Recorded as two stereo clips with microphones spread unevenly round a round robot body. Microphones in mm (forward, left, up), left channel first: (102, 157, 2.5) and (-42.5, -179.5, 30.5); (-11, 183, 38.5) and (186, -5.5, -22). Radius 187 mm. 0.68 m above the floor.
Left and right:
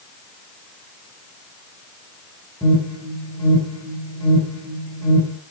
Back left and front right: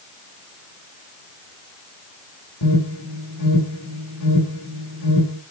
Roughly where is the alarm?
Behind left.